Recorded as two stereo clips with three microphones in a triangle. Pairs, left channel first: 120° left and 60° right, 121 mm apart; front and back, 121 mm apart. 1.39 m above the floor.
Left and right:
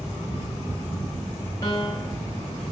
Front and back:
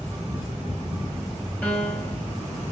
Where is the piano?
75° left, 1.5 m.